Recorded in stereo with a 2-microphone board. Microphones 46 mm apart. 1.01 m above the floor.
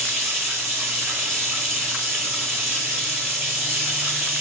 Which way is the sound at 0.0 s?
10° right (ahead or behind).